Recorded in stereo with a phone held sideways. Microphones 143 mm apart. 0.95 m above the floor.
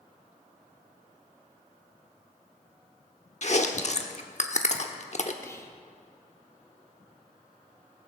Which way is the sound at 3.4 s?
55° left (ahead or behind).